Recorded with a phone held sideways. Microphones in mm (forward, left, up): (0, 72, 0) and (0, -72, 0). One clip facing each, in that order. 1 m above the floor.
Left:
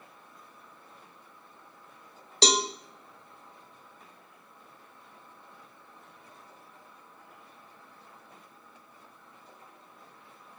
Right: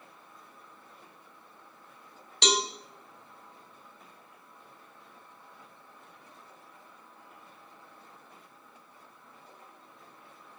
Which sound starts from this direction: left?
A cowbell, at 2.4 s.